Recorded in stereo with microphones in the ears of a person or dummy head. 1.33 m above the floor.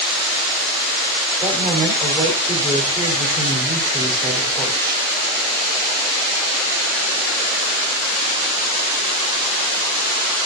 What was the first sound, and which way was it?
A woman speaking, 20° right (ahead or behind).